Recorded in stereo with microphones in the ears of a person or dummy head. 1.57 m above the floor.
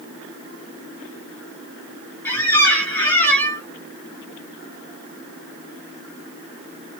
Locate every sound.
2.2 s a squeak: 10° left (ahead or behind), 1.4 m